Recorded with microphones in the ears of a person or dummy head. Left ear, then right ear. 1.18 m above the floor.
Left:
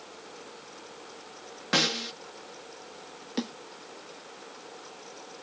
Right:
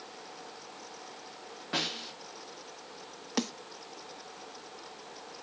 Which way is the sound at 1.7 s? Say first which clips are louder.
Left 7 dB; 75° left (ahead or behind).